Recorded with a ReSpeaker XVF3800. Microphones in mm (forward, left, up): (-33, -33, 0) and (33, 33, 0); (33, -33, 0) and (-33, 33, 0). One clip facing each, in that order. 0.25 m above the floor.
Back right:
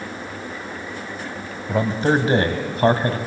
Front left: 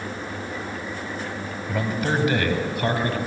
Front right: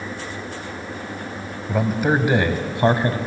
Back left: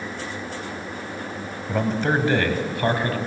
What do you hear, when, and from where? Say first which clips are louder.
1.7 s a man speaking: back right 6 dB, front right 2 dB; 125° right, 1.7 m; by 3.2 s 100° right, 2 m